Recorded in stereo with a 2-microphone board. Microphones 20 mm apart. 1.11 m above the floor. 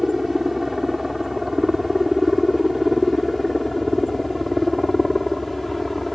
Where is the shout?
No shout in this recording.